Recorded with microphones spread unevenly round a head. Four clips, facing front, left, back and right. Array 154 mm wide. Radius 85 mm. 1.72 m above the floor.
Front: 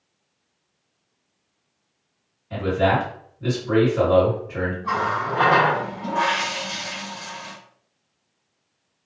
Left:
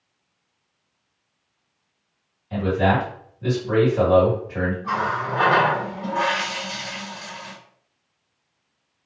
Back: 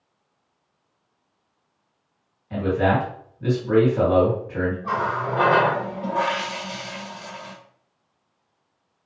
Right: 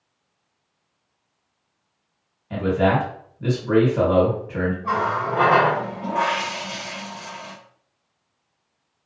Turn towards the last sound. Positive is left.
turn(degrees=-135)